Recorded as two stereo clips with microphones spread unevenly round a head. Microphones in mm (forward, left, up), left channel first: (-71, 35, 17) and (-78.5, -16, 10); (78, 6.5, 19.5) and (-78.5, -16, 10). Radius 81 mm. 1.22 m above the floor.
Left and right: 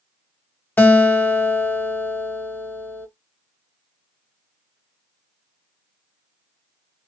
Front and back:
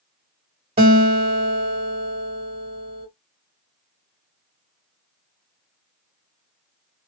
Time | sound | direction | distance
0.8 | a guitar | 130° left | 1.5 m